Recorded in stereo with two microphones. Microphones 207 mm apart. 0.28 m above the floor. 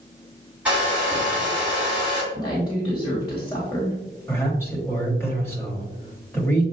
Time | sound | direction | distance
0.7 | a hair dryer | 5° right (ahead or behind) | 2.5 m
2.3 | a woman speaking | 20° left (ahead or behind) | 1.4 m
4.3 | a man speaking | 10° left (ahead or behind) | 1.3 m